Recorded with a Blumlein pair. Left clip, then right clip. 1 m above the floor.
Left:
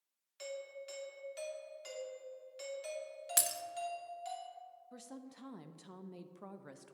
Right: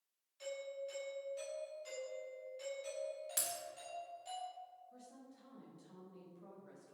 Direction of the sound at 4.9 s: 35° left.